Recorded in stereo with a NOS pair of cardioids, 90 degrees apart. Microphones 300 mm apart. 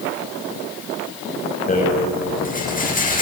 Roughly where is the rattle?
Ahead left.